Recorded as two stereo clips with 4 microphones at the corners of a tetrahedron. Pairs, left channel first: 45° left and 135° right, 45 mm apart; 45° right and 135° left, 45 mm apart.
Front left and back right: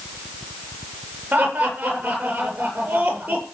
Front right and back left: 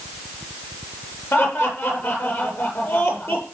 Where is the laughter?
80° right, 8 m.